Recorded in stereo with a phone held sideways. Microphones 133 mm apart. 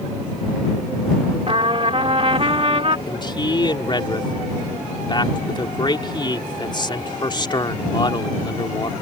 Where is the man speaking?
35° left (ahead or behind).